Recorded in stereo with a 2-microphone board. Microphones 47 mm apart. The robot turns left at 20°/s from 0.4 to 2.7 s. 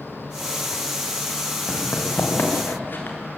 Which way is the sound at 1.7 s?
55° left (ahead or behind).